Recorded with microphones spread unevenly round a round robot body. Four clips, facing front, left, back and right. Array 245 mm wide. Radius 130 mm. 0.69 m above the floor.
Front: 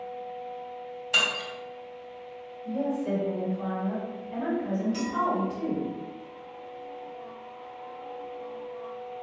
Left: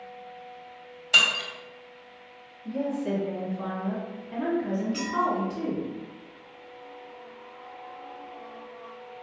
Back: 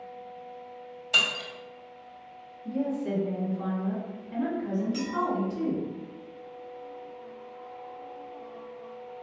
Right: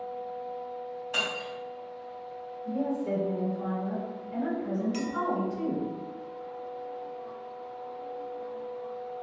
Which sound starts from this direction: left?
Breaking glass, at 1.1 s.